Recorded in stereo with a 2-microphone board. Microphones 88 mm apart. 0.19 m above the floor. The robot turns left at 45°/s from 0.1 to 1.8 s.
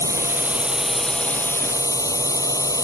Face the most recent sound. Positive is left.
turn(degrees=140)